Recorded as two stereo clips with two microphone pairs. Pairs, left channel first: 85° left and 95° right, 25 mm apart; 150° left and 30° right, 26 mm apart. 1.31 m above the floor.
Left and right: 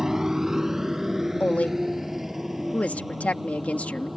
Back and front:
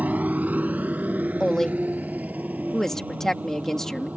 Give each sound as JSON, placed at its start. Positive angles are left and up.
{"t": 0.0, "sound": "a motorcycle", "azimuth_deg": -25}
{"t": 1.4, "sound": "a woman speaking", "azimuth_deg": 80}